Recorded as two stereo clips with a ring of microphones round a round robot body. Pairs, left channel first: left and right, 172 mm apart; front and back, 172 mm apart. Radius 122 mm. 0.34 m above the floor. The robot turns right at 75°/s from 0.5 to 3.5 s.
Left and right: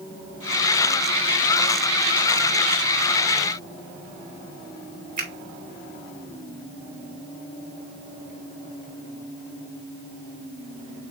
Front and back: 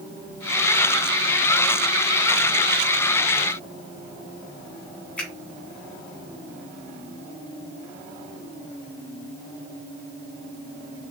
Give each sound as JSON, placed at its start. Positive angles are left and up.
{"t": 5.2, "sound": "a finger snap", "azimuth_deg": -80, "distance_m": 1.9}